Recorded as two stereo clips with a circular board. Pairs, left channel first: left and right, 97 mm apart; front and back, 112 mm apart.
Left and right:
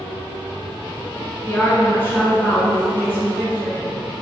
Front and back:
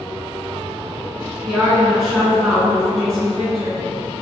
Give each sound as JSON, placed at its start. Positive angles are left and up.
{"t": 1.4, "sound": "a woman speaking", "azimuth_deg": 95, "distance_m": 1.0}